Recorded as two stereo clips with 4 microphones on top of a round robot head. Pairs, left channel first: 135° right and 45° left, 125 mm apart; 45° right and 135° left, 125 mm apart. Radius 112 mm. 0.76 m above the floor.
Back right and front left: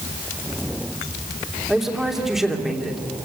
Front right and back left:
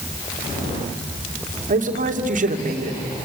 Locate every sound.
1.7 s a man speaking: 130° left, 3 m